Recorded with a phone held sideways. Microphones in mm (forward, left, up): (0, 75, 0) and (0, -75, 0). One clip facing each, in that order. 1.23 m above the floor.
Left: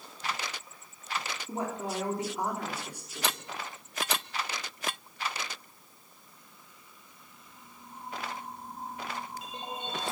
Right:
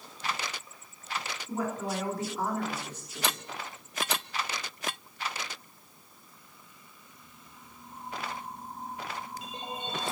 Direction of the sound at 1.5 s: 30° left (ahead or behind).